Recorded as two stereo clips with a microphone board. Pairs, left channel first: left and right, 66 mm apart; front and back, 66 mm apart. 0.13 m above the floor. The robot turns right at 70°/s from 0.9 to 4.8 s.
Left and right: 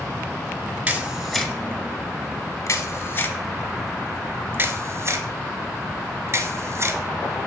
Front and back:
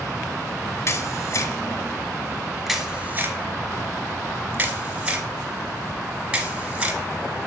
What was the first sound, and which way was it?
A camera shutter, 25° right.